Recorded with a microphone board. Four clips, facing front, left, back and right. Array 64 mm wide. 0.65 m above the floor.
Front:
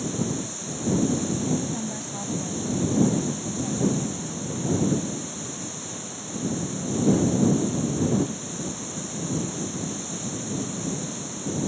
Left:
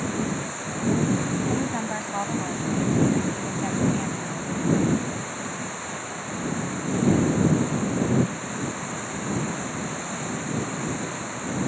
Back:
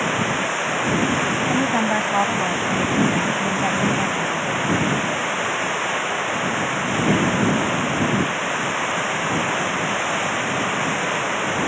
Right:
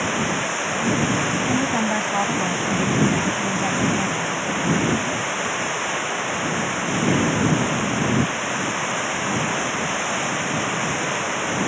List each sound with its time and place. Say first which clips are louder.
0.0 s running water: right 5 dB, back 8 dB; 155° right
1.5 s a woman speaking: right 6 dB, back 9 dB; 165° right